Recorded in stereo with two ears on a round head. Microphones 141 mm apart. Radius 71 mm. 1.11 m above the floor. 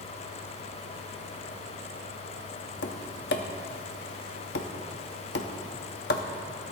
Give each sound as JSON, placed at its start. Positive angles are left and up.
{"t": 2.8, "sound": "tapping", "side_deg": 75, "distance_m": 1.0}